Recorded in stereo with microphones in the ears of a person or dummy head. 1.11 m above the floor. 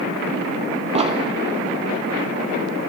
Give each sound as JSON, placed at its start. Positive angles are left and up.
{"t": 0.9, "sound": "an explosion", "side_deg": -30, "distance_m": 0.8}